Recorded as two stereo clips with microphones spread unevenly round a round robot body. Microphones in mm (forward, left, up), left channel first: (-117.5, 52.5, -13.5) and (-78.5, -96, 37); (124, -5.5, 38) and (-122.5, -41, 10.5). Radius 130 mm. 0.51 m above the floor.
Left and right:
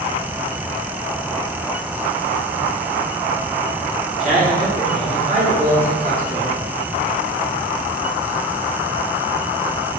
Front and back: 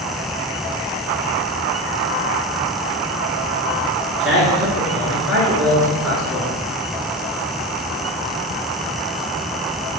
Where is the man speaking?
105° right, 1.4 m.